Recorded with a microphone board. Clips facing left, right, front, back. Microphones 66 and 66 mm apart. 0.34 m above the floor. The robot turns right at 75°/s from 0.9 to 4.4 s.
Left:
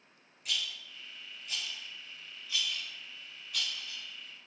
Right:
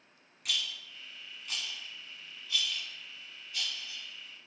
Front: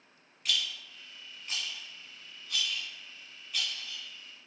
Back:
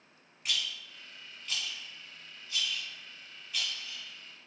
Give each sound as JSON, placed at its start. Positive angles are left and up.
{"t": 0.5, "sound": "a rattle", "azimuth_deg": -110, "distance_m": 1.8}